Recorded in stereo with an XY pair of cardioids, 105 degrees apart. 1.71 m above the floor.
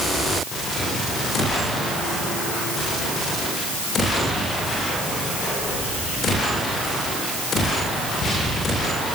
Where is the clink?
No clink in this recording.